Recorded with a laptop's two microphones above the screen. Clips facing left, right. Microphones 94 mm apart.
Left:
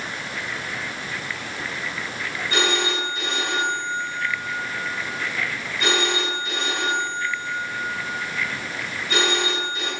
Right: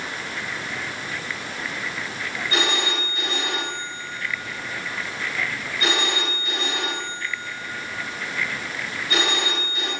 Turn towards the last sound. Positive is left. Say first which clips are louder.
# left 2 dB
turn(degrees=30)  # may be behind; listen again after turning